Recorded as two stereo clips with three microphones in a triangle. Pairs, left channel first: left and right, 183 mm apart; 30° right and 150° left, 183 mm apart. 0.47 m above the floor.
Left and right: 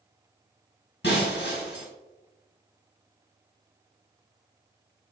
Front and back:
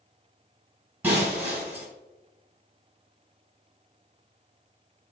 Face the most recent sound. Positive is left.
turn(degrees=70)